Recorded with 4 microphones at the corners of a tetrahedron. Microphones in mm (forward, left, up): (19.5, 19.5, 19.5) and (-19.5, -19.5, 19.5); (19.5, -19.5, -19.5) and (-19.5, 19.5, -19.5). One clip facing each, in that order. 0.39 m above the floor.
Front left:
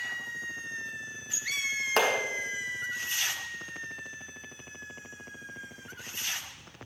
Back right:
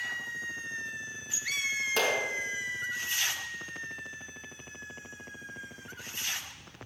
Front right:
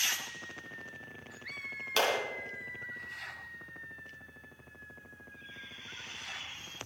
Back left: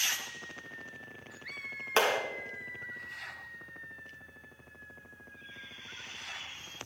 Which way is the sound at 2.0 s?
75° left.